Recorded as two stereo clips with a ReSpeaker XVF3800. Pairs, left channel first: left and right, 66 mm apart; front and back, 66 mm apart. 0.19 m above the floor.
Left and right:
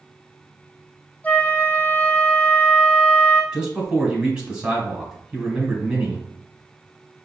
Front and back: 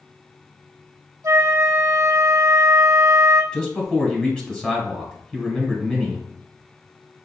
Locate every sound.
1.2 s a flute: 150° left, 0.6 m
3.5 s a man speaking: 45° right, 1.1 m